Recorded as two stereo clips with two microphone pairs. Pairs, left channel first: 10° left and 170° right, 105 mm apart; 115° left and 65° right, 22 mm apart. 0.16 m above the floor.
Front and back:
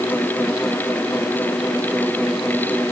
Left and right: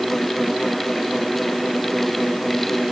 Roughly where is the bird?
I don't hear a bird.